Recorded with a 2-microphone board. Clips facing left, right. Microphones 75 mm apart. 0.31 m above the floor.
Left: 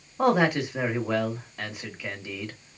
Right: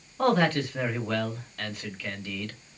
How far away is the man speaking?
About 0.9 m.